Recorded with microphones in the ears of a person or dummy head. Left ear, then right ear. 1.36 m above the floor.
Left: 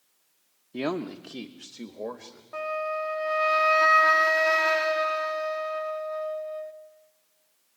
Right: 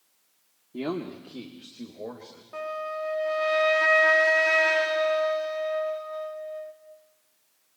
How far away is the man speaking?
About 1.0 m.